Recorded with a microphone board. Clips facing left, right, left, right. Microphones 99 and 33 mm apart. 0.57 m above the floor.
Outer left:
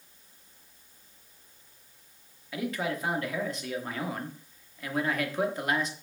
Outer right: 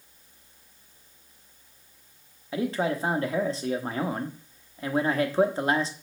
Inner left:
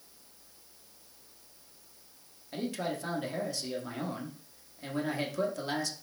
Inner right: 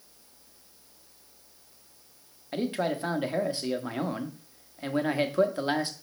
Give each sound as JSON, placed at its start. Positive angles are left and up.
{"t": 2.5, "sound": "a man speaking", "side_deg": -30, "distance_m": 0.9}